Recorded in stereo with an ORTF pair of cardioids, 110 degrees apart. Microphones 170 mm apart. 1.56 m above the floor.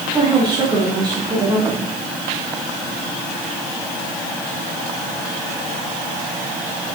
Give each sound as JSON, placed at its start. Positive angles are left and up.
{"t": 0.1, "sound": "a woman speaking", "azimuth_deg": -30, "distance_m": 3.5}